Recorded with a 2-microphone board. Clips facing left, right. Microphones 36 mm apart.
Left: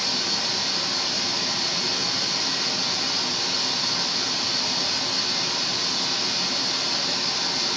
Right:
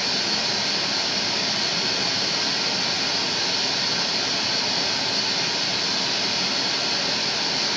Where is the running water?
55° right (ahead or behind), 1.3 m.